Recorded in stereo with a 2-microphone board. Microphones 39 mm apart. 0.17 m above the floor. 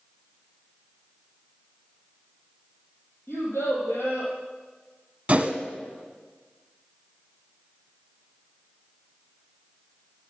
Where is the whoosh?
30° right (ahead or behind), 0.8 m.